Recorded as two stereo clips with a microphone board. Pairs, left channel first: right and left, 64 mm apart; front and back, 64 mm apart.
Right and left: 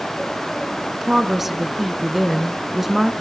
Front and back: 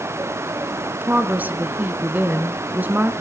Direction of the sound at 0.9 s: 170° left.